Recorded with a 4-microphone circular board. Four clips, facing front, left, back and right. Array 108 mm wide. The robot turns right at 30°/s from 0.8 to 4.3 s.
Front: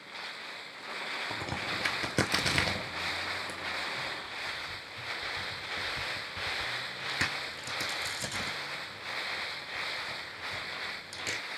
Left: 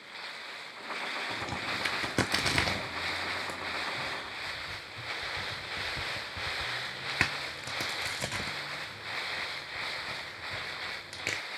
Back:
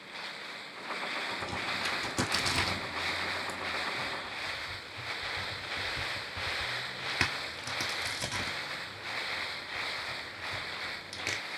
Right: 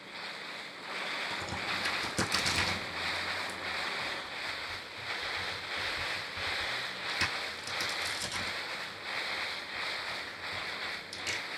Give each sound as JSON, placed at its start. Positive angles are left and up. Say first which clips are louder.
{"t": 1.3, "sound": "a crack", "louder": "left 1 dB, even", "azimuth_deg": 15, "distance_m": 0.6}